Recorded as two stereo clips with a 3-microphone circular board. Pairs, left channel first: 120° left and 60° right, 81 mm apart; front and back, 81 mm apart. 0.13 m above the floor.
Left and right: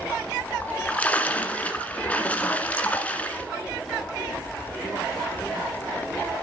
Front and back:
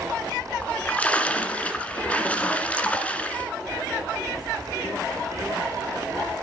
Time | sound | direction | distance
0.6 | a splash | 60° left | 1.8 m